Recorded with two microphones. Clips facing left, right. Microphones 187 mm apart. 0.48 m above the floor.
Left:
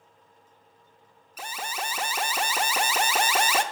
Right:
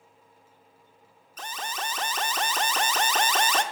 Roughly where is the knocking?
No knocking in this recording.